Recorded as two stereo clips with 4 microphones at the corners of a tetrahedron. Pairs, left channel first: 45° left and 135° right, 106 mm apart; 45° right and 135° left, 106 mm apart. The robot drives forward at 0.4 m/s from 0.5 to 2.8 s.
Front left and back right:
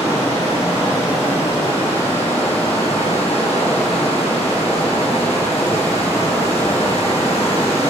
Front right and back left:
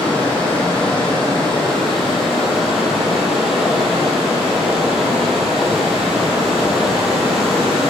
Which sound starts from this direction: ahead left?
Running water, at 0.0 s.